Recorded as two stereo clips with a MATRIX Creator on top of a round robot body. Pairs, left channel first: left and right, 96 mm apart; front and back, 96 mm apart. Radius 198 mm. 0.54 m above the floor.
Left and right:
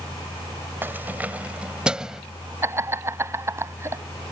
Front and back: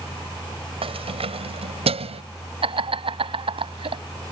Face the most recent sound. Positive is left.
turn(degrees=-155)